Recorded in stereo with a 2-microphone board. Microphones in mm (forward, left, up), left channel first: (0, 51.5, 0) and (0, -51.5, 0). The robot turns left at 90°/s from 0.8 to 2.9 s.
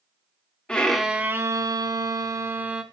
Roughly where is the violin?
Ahead.